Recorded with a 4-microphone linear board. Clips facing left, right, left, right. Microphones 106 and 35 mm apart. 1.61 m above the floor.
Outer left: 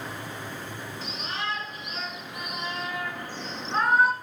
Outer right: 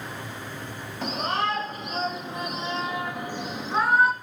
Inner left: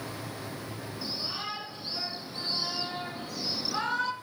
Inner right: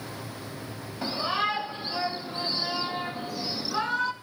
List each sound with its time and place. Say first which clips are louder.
1.0 s a shout: outer right 9 dB, inner right 10 dB; 50° right (ahead or behind), 3 m; by 4.1 s centre (ahead or behind), 2 m